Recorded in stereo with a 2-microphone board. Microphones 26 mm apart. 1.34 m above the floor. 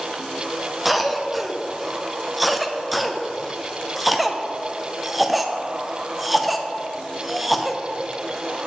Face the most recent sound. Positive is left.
turn(degrees=-5)  # may be behind; listen again after turning